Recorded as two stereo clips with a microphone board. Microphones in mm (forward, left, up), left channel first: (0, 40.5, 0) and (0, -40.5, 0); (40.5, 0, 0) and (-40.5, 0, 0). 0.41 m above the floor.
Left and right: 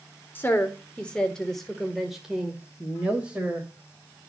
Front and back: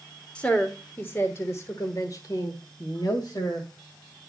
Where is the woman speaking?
60° left, 1.2 m; by 3.7 s 20° right, 2.0 m.